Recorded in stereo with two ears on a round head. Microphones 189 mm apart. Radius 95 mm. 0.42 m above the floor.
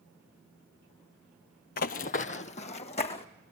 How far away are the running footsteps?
About 0.6 m.